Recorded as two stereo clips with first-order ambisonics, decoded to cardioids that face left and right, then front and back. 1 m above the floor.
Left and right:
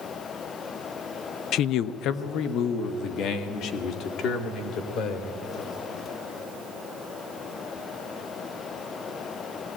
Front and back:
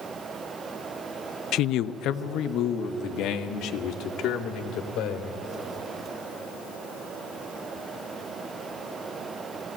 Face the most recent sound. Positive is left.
turn(degrees=45)